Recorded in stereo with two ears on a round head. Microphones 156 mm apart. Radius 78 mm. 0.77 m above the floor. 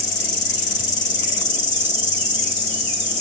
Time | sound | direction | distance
0.0 | an insect | 50° left (ahead or behind) | 4 m